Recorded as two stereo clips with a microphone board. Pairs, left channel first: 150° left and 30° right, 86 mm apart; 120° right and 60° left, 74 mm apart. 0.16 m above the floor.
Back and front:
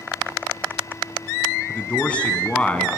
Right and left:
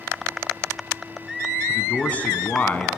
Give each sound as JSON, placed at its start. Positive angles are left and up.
{"t": 1.7, "sound": "a man speaking", "azimuth_deg": -155, "distance_m": 1.7}